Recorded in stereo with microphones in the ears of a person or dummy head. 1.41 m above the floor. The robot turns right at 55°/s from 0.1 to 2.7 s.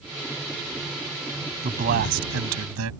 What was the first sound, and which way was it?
A man speaking, 145° right.